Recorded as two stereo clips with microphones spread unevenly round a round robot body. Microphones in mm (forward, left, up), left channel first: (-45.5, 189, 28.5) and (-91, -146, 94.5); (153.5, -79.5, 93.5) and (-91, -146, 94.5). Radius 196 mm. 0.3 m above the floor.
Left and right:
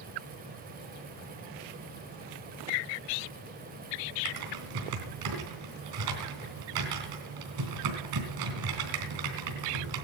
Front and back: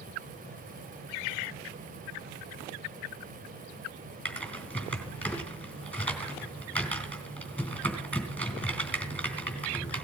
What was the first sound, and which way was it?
Typing on a keyboard, 70° right.